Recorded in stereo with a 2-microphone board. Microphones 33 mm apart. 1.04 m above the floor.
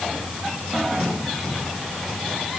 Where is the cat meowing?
I don't hear a cat meowing.